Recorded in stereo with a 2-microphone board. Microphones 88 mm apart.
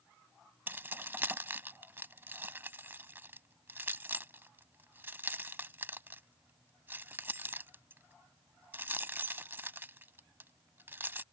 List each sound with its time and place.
0.7 s keys jangling: 25° right (ahead or behind)